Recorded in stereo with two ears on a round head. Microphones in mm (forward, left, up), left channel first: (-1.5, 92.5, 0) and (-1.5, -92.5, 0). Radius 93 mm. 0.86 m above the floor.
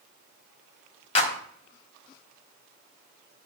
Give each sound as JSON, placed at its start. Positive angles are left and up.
{"t": 1.1, "sound": "a clap", "side_deg": 30, "distance_m": 1.5}